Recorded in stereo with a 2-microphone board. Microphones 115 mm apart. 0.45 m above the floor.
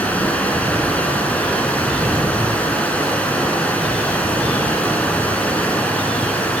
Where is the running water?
10° left (ahead or behind), 2.5 m.